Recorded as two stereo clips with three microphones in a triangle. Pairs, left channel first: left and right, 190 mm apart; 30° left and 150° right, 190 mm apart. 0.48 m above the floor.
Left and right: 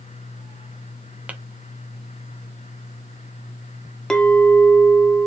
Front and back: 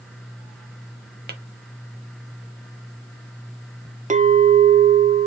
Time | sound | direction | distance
1.3 | tapping | 175° right | 0.6 m
4.1 | a clink | 175° left | 0.5 m